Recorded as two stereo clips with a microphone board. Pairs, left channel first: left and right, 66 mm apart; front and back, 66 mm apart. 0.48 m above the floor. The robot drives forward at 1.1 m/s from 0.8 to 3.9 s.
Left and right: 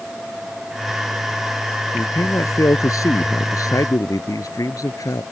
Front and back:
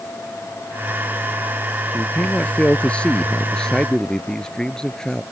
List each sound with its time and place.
1.9 s a man speaking: 65° left; by 5.2 s 80° left